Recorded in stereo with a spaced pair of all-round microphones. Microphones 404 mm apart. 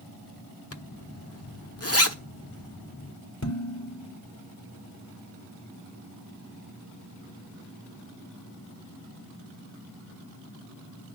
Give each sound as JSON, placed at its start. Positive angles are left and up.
{"t": 0.7, "sound": "a zipper", "side_deg": 35, "distance_m": 1.4}
{"t": 3.4, "sound": "dishes clattering", "side_deg": 40, "distance_m": 4.0}